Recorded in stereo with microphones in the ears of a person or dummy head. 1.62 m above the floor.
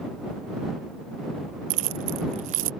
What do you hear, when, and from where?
1.7 s keys jangling: 35° right (ahead or behind)